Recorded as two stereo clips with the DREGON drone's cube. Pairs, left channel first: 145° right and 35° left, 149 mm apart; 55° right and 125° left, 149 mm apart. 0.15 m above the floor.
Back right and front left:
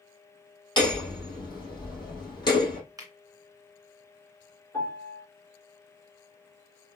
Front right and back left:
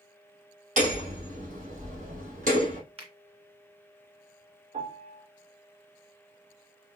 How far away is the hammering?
About 3 m.